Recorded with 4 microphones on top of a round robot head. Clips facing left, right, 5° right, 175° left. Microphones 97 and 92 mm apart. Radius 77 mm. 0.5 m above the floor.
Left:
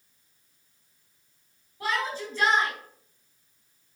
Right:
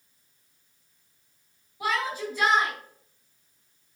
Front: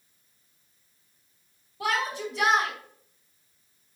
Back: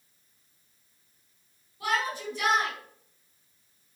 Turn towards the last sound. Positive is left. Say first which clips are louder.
# right 1 dB, front 1 dB
turn(degrees=-10)